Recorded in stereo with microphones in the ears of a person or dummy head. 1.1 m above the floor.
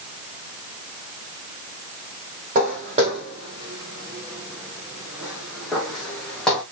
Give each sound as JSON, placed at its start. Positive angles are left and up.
{"t": 2.5, "sound": "footsteps", "side_deg": -45, "distance_m": 2.5}